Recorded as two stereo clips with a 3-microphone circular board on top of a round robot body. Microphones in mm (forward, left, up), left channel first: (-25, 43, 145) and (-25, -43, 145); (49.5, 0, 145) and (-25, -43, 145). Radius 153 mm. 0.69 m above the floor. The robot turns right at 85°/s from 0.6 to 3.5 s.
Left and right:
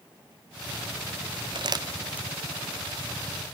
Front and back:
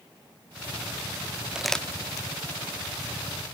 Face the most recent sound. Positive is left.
turn(degrees=95)